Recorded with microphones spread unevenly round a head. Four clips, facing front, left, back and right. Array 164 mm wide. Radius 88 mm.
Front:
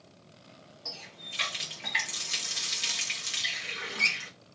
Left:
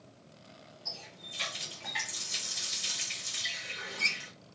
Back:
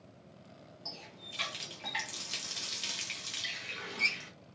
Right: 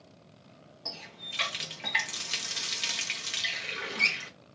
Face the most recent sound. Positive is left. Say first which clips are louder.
# right 6 dB, front 3 dB
turn(degrees=-55)